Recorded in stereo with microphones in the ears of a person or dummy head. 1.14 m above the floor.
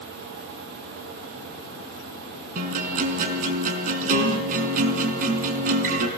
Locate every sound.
2.5 s a guitar: 45° right (ahead or behind), 4.5 m